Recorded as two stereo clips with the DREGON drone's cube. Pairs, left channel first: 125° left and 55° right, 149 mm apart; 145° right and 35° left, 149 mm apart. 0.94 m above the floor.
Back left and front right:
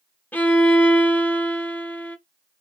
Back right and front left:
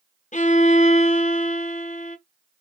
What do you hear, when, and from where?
0.3 s a violin: 160° right, 0.6 m